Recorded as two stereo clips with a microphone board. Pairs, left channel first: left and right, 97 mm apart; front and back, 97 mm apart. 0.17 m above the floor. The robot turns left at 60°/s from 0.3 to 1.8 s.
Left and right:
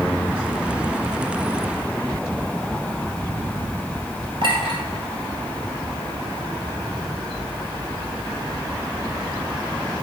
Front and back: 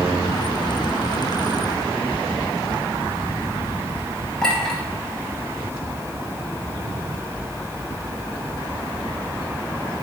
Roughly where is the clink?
Right.